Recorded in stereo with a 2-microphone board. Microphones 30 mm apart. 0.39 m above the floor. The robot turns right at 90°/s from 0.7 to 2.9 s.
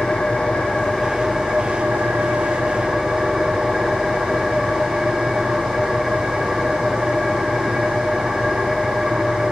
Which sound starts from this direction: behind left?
An engine running, at 0.0 s.